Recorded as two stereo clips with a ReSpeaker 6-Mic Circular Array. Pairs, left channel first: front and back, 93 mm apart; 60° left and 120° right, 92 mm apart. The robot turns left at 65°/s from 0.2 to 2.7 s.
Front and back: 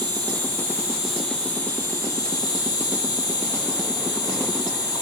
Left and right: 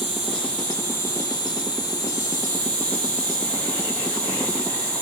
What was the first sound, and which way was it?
An insect, 155° left.